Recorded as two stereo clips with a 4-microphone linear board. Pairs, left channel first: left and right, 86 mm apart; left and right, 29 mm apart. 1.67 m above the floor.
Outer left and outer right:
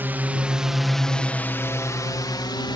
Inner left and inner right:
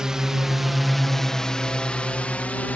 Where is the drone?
25° right (ahead or behind); by 2.8 s 60° left (ahead or behind).